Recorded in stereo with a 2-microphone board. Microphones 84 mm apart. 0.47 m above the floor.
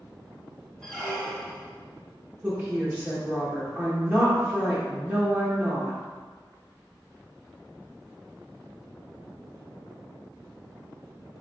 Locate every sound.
0.8 s a squeak: 10° left (ahead or behind), 0.7 m
2.4 s a woman speaking: 25° right (ahead or behind), 1.0 m